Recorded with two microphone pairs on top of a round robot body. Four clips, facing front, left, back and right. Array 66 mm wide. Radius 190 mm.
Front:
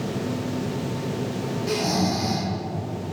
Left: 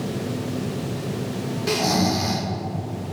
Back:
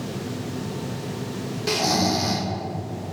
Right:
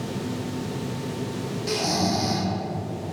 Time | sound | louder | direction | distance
1.7 | snoring | left 3 dB, back 2 dB | 145° left | 1.8 m